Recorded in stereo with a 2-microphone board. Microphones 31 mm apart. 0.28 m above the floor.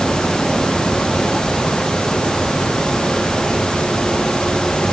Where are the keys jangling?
I don't hear keys jangling.